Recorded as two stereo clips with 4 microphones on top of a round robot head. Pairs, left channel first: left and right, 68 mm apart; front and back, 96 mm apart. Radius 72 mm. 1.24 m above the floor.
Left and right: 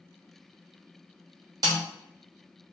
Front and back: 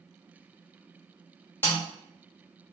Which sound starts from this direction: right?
A snare drum, at 1.6 s.